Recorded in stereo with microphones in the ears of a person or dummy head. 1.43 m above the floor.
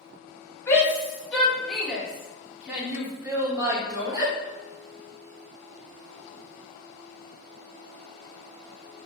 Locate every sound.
0.7 s a shout: 15° left (ahead or behind), 3 m; by 4.3 s 25° right (ahead or behind), 3 m